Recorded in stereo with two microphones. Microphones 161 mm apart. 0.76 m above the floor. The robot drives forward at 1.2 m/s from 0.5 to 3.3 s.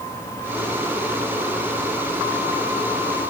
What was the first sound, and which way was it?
Only background noise.